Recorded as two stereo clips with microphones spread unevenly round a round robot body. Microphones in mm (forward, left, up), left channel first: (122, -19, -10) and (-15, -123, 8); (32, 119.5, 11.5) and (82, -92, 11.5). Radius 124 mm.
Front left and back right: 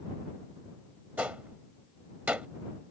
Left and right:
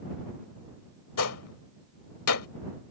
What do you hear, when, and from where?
1.2 s a gunshot: 135° left